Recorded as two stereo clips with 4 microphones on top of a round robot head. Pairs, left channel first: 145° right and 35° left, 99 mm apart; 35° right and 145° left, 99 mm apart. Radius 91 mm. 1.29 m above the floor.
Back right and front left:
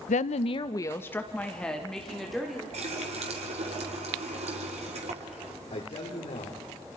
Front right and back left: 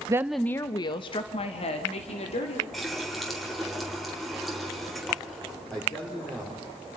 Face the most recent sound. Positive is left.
turn(degrees=-115)